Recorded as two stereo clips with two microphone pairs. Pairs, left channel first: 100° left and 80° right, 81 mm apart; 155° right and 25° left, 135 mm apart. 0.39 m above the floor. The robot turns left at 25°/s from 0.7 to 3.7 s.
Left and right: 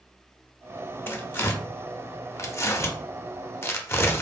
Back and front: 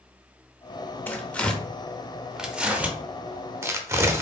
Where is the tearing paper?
140° left, 0.6 m; by 4.2 s 75° left, 0.6 m.